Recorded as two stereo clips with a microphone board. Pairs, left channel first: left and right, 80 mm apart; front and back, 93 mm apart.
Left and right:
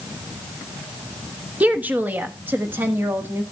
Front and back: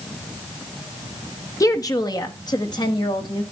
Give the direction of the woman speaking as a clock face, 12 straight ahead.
1 o'clock.